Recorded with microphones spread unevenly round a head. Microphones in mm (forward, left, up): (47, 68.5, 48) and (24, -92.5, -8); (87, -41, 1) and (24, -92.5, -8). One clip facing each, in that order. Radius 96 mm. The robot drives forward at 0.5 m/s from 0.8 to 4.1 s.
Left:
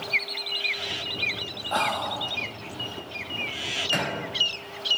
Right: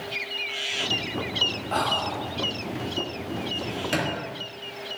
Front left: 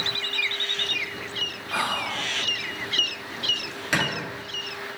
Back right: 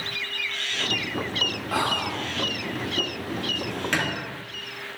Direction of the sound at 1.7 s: 170° left.